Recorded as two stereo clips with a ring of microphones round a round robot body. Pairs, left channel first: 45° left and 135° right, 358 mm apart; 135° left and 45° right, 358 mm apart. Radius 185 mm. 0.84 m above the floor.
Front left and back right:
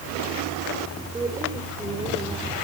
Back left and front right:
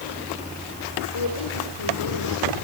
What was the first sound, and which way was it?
A woman speaking, 145° left.